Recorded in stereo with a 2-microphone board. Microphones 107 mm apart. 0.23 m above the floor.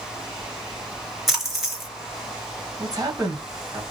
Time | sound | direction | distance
1.3 | a splash | centre (ahead or behind) | 1.9 m
2.8 | a man speaking | 35° right (ahead or behind) | 1.4 m